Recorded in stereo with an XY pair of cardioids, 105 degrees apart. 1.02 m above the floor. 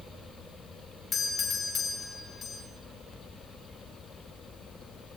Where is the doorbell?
45° left, 5 m.